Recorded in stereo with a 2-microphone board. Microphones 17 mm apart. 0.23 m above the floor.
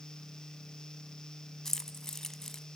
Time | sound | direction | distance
1.6 | keys jangling | 25° left (ahead or behind) | 1.1 m